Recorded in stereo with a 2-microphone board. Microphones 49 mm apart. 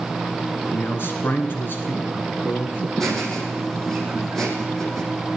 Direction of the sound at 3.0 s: 5° left (ahead or behind).